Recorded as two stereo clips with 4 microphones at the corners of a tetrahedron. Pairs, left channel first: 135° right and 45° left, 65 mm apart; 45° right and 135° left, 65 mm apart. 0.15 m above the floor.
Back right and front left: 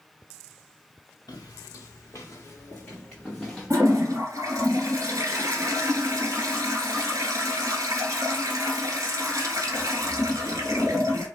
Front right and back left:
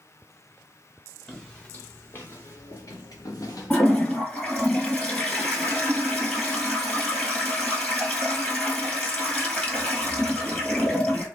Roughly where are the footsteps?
Behind right.